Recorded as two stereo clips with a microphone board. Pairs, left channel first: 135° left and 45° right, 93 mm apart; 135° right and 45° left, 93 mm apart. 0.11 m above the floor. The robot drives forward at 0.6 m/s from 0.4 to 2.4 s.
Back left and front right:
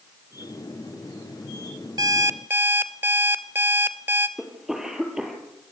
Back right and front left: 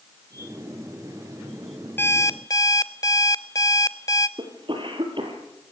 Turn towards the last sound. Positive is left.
turn(degrees=40)